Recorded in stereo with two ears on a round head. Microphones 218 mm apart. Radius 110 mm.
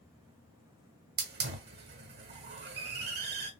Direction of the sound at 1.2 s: 45° right (ahead or behind).